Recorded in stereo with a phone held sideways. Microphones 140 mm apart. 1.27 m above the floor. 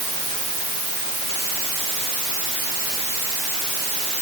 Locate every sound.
Only background noise.